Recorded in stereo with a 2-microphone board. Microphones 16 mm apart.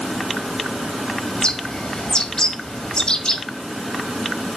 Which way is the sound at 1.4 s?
55° left (ahead or behind).